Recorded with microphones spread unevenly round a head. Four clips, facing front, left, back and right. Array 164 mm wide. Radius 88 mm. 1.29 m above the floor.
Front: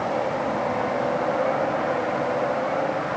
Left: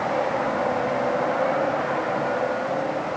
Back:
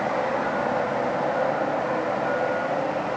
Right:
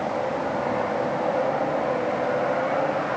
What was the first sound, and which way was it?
Only background noise.